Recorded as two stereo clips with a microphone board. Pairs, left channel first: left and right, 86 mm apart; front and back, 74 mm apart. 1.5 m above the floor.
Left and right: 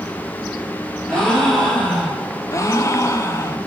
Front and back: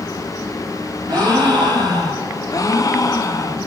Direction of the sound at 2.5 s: 40° left.